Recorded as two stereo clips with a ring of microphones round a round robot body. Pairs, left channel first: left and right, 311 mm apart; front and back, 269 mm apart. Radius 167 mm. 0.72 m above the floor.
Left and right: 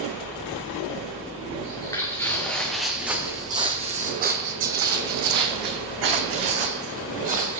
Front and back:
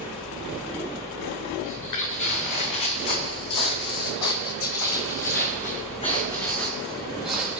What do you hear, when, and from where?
1.6 s footsteps: 15° left, 3 m; by 7.6 s 95° right, 2.5 m